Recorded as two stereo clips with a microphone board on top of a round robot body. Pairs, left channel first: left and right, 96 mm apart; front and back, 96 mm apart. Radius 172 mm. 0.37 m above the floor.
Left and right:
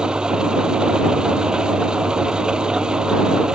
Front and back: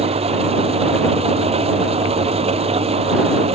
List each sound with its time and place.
0.0 s an engine running: 170° right